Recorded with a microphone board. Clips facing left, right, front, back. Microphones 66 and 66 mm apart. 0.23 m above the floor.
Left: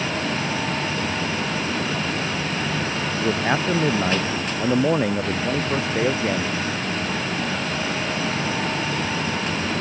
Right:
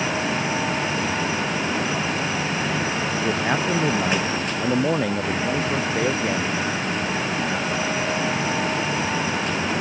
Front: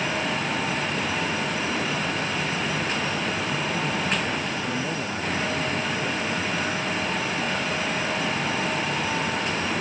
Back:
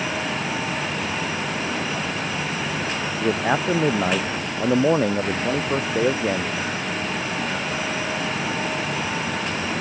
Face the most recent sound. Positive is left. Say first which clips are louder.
# left 2 dB, back 6 dB
turn(degrees=170)